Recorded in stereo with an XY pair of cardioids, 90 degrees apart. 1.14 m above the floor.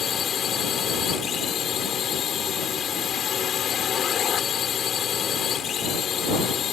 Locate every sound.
0.0 s a drone: 65° left